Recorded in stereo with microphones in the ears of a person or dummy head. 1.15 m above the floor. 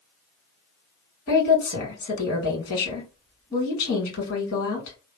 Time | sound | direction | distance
1.3 | a woman speaking | 65° left (ahead or behind) | 1.8 m